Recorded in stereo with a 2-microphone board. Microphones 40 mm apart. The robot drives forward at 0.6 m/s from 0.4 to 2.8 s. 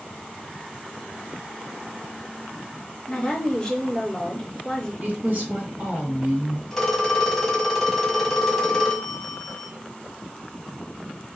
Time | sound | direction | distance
3.1 | a woman speaking | 15° left (ahead or behind) | 3.5 m
5.0 | a woman speaking | 45° right (ahead or behind) | 1.9 m
6.7 | a phone ringing | 10° left (ahead or behind) | 1.3 m